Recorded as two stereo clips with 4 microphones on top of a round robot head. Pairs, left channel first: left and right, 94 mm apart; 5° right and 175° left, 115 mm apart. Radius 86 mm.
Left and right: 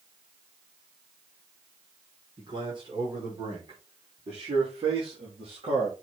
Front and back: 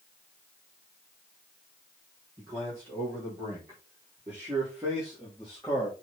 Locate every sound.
2.4 s a man speaking: 120° right, 6 m; by 6.0 s 85° right, 3.5 m